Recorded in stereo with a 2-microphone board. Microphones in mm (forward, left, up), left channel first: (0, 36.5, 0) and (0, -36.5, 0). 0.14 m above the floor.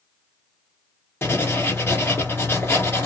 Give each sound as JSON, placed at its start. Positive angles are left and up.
{"t": 1.2, "sound": "writing", "side_deg": 35, "distance_m": 1.5}